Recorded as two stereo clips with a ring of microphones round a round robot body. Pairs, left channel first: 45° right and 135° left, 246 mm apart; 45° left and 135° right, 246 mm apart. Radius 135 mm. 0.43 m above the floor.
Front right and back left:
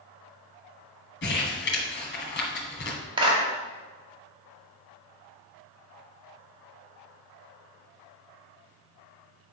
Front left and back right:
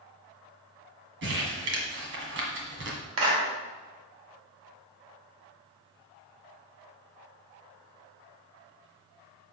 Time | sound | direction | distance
1.2 | crumpling | 90° right | 1.8 m
3.2 | a clap | 155° right | 2.0 m